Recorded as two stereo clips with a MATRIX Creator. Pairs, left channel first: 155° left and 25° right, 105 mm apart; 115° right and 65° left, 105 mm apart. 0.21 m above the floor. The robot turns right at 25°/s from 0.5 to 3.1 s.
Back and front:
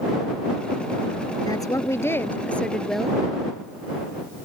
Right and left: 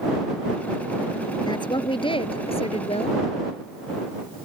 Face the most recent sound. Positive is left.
turn(degrees=-110)